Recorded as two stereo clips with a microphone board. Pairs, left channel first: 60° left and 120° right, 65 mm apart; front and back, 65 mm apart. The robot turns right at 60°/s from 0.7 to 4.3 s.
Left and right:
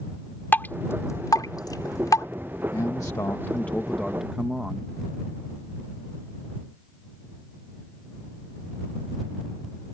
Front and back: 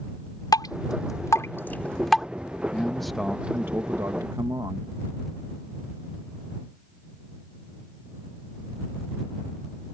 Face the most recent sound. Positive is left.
turn(degrees=165)